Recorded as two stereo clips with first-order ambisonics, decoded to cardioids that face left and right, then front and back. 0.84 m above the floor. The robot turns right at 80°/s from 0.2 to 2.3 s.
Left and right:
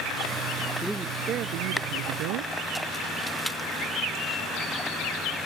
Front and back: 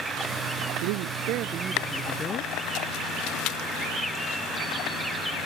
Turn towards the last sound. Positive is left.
turn(degrees=-65)